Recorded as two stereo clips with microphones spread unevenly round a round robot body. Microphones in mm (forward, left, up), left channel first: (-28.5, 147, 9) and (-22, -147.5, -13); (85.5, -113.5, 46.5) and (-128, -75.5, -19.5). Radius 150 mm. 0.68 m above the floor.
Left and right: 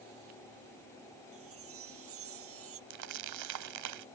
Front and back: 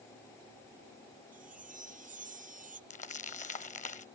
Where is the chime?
135° right.